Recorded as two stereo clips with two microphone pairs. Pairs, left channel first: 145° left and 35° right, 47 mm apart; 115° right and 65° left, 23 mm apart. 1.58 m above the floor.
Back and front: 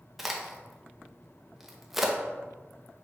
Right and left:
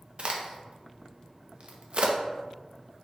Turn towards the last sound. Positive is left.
turn(degrees=55)